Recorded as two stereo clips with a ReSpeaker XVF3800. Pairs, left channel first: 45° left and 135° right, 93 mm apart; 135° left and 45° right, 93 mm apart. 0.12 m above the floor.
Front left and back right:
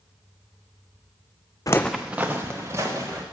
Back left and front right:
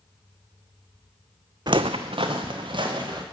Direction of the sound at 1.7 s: 5° right.